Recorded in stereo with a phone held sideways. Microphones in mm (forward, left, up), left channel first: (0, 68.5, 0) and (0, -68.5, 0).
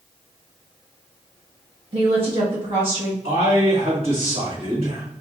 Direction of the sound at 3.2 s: 40° right (ahead or behind).